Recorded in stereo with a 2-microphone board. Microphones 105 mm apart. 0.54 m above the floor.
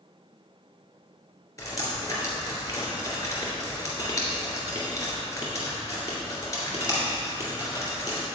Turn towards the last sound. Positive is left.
turn(degrees=30)  # may be behind; listen again after turning